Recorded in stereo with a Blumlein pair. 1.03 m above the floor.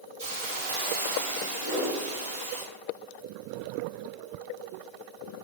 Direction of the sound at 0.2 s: 55° right.